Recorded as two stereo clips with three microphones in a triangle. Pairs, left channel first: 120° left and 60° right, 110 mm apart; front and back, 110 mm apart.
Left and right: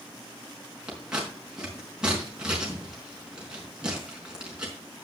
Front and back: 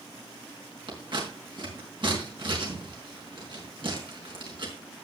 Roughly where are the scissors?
Behind right.